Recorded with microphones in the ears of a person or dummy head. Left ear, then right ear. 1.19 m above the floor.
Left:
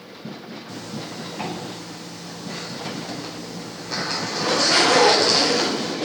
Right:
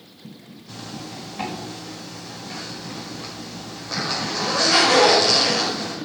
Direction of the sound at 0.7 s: 5° right (ahead or behind).